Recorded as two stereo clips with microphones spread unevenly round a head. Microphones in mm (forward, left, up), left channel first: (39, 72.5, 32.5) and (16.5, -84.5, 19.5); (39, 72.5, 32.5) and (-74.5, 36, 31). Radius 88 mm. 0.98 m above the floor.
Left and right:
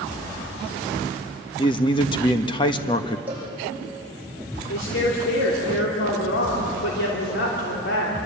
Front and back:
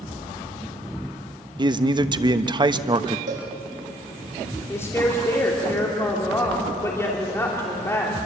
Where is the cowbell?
Straight behind, 9.5 m.